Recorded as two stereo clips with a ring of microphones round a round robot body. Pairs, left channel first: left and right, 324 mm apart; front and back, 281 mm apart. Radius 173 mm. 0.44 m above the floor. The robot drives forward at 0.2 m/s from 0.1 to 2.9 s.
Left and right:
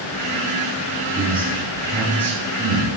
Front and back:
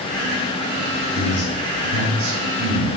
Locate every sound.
1.1 s a man speaking: 175° left, 2.5 m